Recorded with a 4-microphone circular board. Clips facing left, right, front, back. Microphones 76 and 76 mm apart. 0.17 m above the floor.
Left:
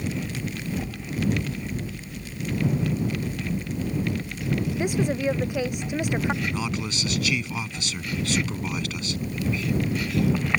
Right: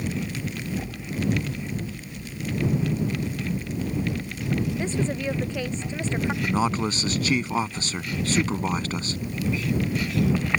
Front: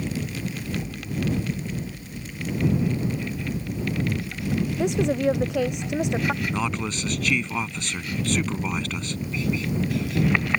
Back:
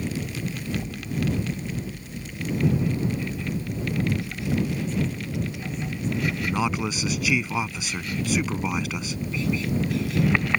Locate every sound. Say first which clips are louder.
4.8 s a woman speaking: left 2 dB, front 7 dB; 15° left
6.4 s a man speaking: right 5 dB, back 1 dB; 105° right